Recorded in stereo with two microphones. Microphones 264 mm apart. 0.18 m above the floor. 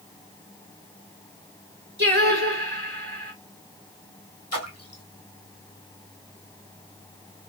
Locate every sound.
2.0 s singing: 40° right (ahead or behind), 2.5 m
4.5 s a splash: 65° left (ahead or behind), 1.8 m